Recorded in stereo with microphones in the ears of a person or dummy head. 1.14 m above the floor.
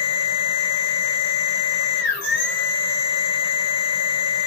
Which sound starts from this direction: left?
A machine running, at 0.0 s.